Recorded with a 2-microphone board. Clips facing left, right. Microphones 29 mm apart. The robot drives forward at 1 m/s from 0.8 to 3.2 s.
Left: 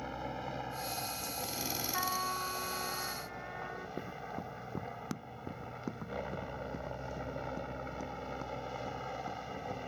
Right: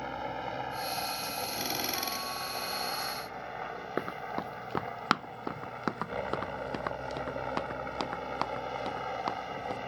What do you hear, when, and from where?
0.0 s a helicopter: 20° right (ahead or behind); by 9.9 s 25° right (ahead or behind)
1.9 s a trumpet: 35° left (ahead or behind); by 3.9 s 10° left (ahead or behind)
4.0 s running footsteps: 70° right (ahead or behind); by 9.8 s 75° right (ahead or behind)